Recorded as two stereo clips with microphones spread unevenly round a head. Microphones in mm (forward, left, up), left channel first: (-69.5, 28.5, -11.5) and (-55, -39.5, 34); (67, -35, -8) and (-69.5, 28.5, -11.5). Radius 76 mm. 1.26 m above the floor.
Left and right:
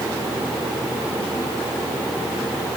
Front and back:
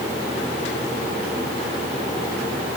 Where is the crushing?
I don't hear crushing.